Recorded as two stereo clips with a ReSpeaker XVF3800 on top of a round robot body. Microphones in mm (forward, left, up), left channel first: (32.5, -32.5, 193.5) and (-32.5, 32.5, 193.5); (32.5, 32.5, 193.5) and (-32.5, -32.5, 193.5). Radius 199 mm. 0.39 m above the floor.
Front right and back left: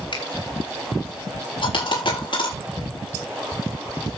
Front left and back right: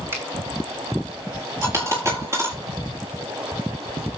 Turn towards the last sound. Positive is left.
turn(degrees=-75)